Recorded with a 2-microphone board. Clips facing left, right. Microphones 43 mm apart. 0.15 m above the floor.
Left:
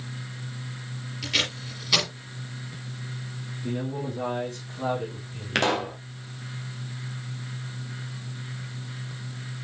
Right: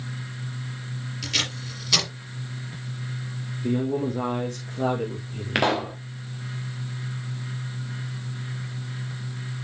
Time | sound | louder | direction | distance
1.2 | tape being pulled | left 1 dB | 5° left (ahead or behind) | 3.5 m
3.6 | a man speaking | right 6 dB | 55° right (ahead or behind) | 3.5 m
5.5 | a pop | right 1 dB | 10° right (ahead or behind) | 1.8 m